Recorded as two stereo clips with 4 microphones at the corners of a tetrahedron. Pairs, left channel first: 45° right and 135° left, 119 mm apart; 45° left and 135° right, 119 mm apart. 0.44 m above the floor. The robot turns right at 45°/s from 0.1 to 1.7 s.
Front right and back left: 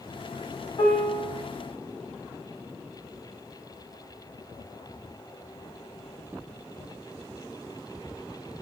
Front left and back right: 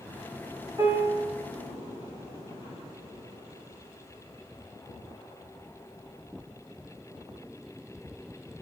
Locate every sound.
0.8 s a piano: 75° right, 0.9 m; by 1.3 s 50° right, 0.9 m